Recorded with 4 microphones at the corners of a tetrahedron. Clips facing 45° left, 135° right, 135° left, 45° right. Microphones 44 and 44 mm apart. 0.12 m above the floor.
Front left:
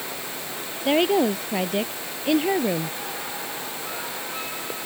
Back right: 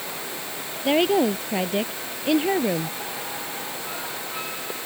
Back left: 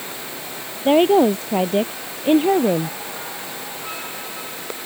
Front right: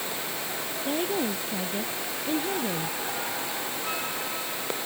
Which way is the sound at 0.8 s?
135° left.